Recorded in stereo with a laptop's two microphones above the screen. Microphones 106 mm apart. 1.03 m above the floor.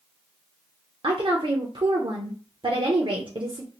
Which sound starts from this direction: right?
A woman speaking, at 1.0 s.